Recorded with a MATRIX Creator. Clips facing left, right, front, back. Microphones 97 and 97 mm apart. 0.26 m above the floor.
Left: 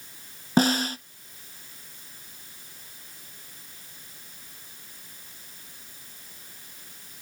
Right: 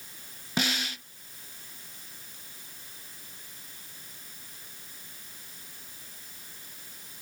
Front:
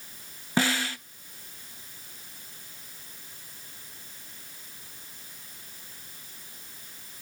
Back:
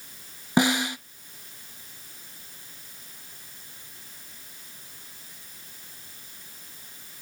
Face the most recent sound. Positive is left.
turn(degrees=115)